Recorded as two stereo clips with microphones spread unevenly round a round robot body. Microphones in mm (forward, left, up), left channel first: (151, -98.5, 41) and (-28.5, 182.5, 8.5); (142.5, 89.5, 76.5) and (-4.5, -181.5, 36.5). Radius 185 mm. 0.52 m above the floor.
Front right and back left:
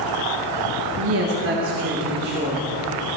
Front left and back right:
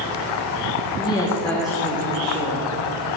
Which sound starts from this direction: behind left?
A woman speaking, at 1.0 s.